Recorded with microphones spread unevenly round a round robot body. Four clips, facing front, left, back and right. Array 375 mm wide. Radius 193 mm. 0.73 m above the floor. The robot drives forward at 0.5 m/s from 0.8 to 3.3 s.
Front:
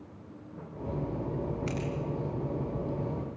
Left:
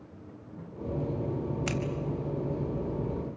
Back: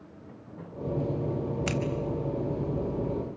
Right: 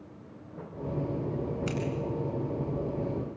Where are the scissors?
155° left, 4.5 m.